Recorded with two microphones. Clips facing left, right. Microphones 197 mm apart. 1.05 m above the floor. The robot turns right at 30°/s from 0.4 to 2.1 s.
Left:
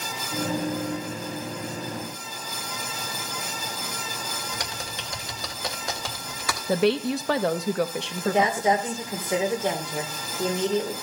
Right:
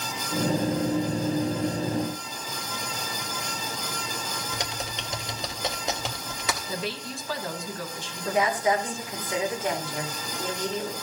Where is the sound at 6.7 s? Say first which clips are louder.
Left 12 dB; 70° left (ahead or behind), 0.8 m.